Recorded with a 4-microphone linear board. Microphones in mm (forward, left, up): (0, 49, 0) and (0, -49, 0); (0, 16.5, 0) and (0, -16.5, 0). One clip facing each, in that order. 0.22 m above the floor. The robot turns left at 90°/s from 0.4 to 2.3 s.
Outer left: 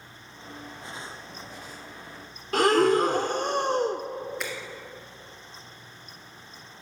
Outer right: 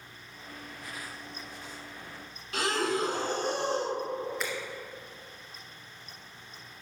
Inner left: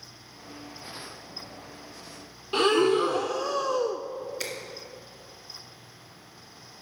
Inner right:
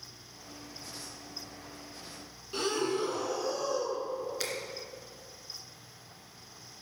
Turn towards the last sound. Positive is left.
turn(degrees=0)  # may be behind; listen again after turning